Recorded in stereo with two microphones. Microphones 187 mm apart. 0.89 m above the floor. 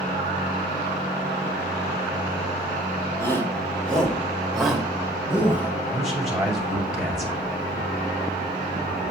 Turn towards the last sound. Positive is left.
turn(degrees=0)  # may be behind; listen again after turning